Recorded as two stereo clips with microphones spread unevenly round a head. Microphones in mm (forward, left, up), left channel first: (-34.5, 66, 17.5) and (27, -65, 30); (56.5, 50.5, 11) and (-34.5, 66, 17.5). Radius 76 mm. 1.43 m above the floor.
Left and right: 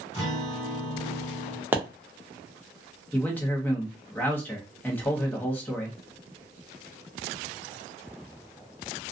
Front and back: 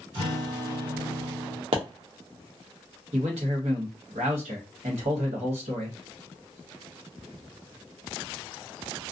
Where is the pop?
145° right, 0.7 m.